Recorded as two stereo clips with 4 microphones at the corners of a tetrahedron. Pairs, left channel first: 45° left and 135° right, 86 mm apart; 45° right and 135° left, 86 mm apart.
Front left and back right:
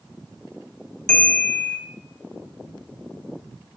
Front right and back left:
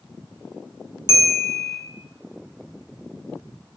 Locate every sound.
1.1 s a bell: 125° left, 0.6 m